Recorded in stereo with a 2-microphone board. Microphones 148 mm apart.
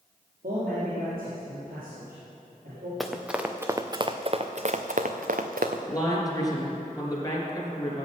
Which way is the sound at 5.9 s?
25° left (ahead or behind).